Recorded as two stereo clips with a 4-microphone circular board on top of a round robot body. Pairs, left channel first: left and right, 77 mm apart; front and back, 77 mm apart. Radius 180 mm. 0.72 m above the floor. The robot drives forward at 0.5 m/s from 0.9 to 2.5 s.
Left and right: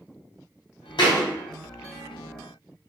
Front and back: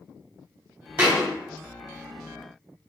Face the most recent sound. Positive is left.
turn(degrees=135)